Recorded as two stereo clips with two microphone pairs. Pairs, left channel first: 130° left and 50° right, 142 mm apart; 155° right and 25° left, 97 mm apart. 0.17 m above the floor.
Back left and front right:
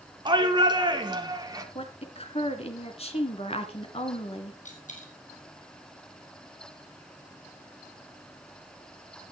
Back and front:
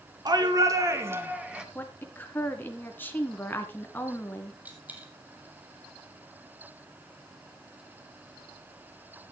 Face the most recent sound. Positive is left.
turn(degrees=100)